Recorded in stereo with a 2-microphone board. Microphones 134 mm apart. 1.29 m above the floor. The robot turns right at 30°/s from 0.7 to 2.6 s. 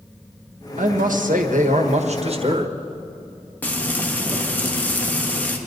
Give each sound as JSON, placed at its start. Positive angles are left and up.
{"t": 0.8, "sound": "a man speaking", "azimuth_deg": -100, "distance_m": 1.5}
{"t": 3.6, "sound": "frying", "side_deg": 10, "distance_m": 1.6}